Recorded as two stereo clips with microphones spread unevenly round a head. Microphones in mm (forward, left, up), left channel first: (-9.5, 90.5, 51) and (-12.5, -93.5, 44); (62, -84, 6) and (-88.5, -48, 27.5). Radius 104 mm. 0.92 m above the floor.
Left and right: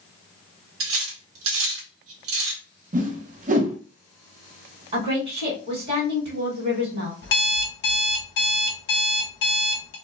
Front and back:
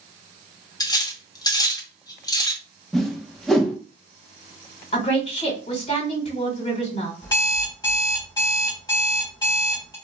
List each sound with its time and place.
0.8 s cutlery clinking: 80° right, 0.8 m
2.9 s a whoosh: 90° right, 0.7 m
4.9 s a woman speaking: 40° right, 1.3 m
7.2 s an alarm clock: 65° left, 0.8 m